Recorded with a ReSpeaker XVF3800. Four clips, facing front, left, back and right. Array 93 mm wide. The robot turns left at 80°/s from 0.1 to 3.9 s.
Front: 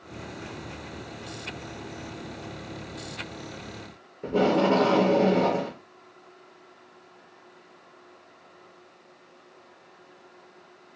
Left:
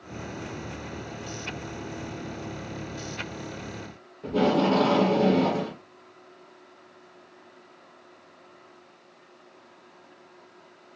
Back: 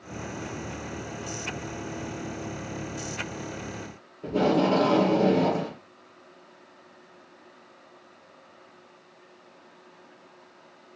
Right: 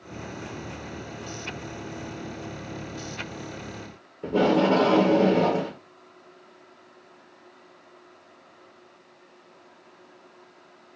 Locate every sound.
4.2 s tape being pulled: 60° right, 1.6 m